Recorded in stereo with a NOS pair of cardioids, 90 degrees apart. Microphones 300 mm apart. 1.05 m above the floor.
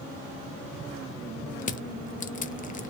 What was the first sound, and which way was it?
Crushing, 25° left.